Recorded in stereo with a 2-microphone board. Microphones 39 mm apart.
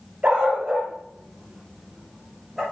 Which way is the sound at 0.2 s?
35° right (ahead or behind).